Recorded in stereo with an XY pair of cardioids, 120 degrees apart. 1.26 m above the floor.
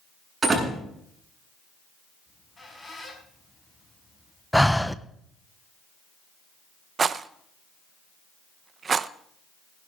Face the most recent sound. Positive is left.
turn(degrees=-35)